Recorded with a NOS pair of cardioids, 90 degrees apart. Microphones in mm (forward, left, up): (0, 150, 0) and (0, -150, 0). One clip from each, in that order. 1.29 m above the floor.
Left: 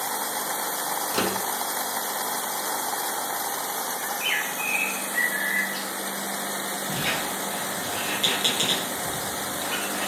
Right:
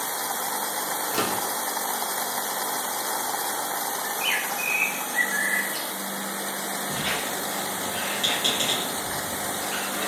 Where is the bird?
5° left, 3 m.